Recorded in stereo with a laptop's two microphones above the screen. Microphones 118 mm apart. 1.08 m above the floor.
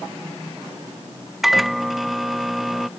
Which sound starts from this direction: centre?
A microwave, at 1.4 s.